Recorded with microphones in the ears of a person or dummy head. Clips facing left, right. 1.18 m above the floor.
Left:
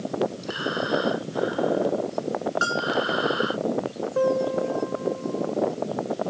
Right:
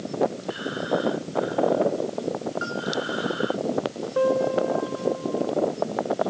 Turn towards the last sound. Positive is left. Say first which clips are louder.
# right 1 dB
turn(degrees=0)  # may be behind; listen again after turning